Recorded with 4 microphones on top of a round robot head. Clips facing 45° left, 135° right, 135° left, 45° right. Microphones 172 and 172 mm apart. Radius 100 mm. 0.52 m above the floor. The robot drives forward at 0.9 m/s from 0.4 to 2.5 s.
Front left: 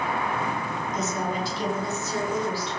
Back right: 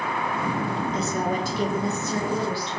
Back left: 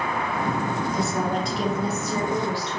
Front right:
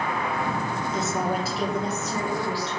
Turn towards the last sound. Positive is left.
turn(degrees=-160)